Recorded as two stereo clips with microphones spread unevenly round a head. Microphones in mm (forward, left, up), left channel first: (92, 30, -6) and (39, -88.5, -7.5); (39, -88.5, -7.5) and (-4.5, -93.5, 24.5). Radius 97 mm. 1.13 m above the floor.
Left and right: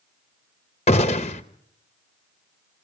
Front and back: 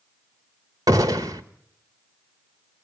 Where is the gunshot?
125° left, 1.0 m.